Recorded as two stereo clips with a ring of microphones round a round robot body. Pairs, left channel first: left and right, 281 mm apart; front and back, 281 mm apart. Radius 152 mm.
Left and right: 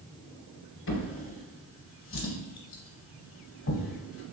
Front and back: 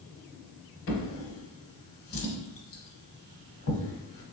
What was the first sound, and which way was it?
A drawer, 40° left.